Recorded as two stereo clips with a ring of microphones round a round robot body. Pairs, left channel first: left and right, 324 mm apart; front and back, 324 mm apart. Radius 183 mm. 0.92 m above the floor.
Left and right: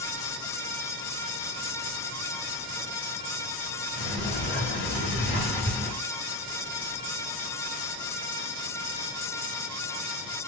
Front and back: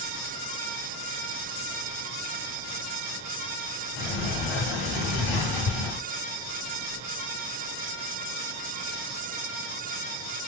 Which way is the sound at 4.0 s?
25° left.